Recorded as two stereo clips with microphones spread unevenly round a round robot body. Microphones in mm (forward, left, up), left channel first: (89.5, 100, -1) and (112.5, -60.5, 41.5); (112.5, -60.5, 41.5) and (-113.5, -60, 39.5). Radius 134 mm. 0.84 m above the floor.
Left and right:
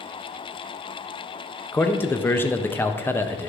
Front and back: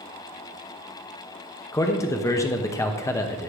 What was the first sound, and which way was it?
A man speaking, 65° left.